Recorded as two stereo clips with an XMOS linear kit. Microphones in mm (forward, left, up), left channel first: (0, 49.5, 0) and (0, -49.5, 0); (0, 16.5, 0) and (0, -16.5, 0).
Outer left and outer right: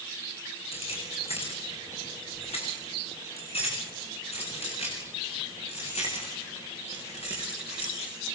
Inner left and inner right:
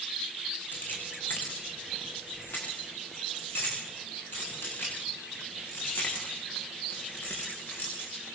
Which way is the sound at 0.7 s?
70° left (ahead or behind).